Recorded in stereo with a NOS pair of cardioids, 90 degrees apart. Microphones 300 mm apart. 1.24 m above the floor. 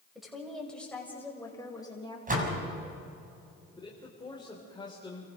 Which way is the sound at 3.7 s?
15° left.